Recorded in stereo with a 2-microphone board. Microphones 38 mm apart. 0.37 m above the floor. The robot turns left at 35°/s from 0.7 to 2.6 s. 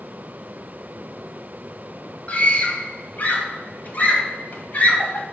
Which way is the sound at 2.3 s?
35° left (ahead or behind).